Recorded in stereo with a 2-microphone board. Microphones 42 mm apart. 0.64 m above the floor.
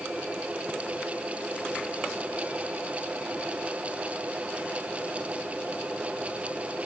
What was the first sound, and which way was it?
Only background noise.